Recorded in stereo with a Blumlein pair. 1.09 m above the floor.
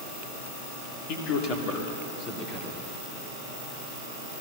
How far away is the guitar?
I don't hear a guitar.